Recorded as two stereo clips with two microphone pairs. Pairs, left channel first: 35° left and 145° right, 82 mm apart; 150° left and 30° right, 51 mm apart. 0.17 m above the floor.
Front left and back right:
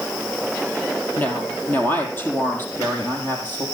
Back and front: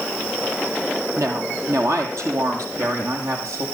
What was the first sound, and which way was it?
A woman speaking, 35° right.